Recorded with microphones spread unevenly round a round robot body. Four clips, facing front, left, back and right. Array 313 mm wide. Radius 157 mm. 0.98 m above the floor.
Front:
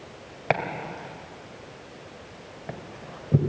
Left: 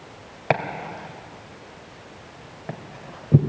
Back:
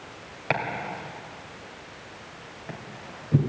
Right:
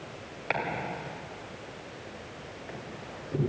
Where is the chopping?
80° left, 2.5 m.